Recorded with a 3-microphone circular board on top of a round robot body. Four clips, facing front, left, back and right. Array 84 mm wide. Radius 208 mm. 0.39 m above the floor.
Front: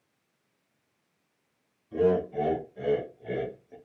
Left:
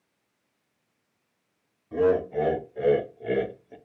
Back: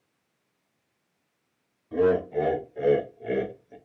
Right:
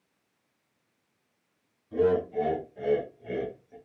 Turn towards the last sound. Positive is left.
turn(degrees=105)